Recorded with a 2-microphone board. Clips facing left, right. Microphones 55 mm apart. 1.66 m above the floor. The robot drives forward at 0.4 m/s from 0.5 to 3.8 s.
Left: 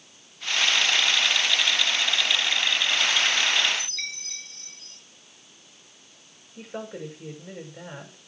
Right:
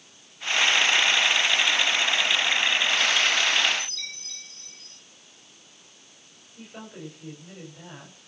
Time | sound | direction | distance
3.8 | a chime | 65° left (ahead or behind) | 4.5 m
6.6 | a woman speaking | 80° left | 7.5 m